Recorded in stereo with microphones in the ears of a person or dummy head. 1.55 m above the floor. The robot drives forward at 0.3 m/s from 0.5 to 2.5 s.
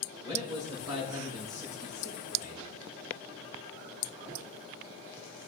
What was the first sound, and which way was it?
A man speaking, 15° right (ahead or behind).